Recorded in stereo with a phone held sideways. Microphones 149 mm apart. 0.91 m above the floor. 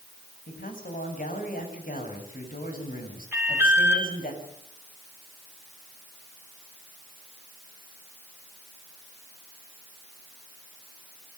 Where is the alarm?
15° right (ahead or behind), 5 m.